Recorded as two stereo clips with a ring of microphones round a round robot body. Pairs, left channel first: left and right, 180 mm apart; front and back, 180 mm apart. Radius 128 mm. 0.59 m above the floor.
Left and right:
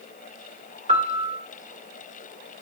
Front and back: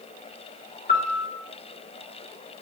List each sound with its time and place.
0.9 s a piano: 45° right, 2 m